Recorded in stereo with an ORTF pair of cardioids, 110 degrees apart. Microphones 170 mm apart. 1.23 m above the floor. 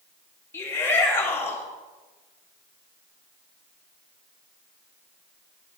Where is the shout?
15° left, 2 m.